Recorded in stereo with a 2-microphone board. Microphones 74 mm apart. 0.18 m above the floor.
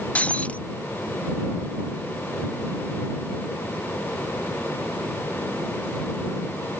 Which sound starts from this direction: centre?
Breaking glass, at 0.1 s.